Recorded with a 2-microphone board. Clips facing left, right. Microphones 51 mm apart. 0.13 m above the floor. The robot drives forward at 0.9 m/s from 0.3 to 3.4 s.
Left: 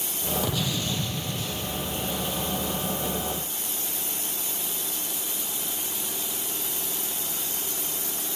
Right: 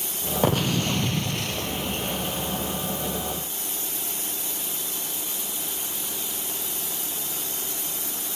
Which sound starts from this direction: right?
An explosion, at 0.4 s.